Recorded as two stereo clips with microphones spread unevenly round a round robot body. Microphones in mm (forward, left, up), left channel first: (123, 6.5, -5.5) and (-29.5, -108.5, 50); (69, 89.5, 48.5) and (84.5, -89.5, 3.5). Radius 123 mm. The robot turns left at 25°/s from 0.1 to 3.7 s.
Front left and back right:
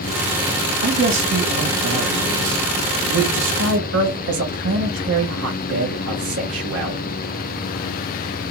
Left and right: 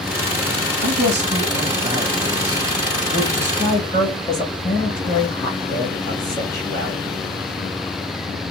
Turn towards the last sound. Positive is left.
turn(degrees=175)